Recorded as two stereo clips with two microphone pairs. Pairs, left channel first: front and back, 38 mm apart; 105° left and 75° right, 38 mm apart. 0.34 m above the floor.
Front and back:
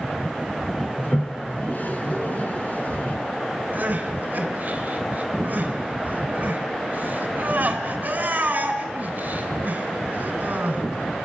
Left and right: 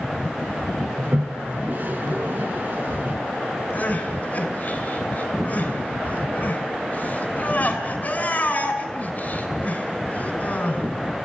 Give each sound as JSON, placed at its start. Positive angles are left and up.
{"t": 1.0, "sound": "a toilet flushing", "azimuth_deg": -45, "distance_m": 2.5}
{"t": 3.7, "sound": "crying", "azimuth_deg": 145, "distance_m": 3.5}